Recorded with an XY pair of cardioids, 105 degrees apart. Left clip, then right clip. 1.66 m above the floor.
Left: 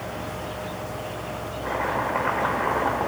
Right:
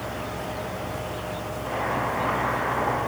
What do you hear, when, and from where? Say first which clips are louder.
1.6 s chopping: left 1 dB; 65° left, 4 m